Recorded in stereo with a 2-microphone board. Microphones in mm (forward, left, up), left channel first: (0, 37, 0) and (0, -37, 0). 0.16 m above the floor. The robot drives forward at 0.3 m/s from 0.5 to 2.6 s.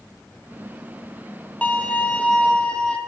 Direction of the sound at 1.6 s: 20° left (ahead or behind).